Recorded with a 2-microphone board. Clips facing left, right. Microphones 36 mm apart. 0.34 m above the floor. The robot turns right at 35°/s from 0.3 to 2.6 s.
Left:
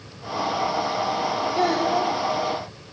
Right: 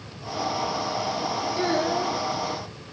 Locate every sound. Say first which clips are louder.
1.6 s a child speaking: left 3 dB; 85° left, 4.5 m; by 2.1 s 65° left (ahead or behind), 4.5 m